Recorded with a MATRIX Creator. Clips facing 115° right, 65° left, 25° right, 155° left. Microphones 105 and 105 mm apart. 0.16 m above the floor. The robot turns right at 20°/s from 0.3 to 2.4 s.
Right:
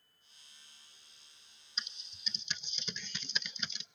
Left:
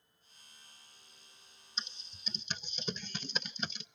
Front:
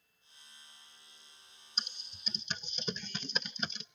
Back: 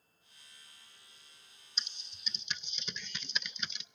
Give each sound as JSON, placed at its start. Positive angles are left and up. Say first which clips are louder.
{"t": 1.8, "sound": "typing on a keyboard", "louder": "left 1 dB, front 2 dB", "azimuth_deg": 10, "distance_m": 0.6}